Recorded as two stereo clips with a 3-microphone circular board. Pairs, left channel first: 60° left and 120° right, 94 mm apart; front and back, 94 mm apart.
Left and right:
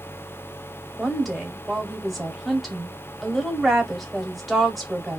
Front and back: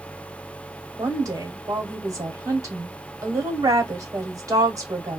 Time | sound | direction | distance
1.0 | a woman speaking | 150° left | 1.2 m